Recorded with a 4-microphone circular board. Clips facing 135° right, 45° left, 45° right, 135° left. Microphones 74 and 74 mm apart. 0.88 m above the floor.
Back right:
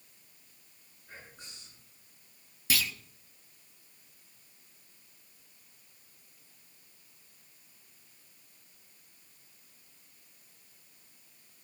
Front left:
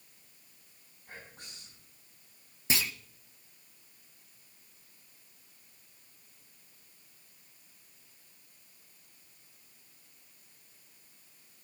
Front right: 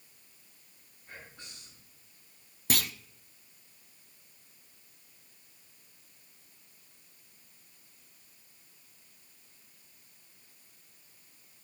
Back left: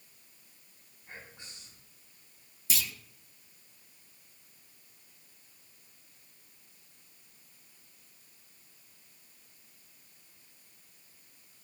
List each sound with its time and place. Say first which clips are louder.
1.1 s whispering: front left 1 dB, even; 65° left, 6.5 m
2.7 s a clunk: even, front right 5 dB; 20° right, 0.5 m